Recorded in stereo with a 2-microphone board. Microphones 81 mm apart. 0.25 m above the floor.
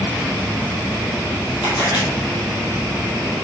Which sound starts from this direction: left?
A camera shutter, at 1.6 s.